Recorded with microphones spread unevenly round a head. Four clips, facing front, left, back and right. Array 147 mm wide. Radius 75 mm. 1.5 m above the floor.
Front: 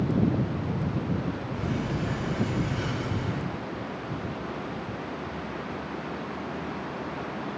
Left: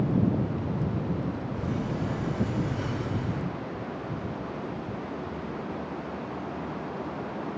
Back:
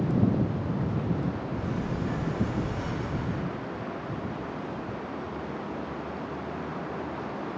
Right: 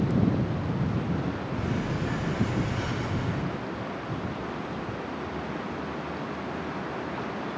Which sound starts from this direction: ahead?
A sliding door, at 1.6 s.